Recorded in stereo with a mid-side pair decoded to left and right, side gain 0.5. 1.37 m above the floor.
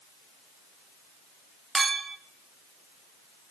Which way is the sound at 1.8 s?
25° right.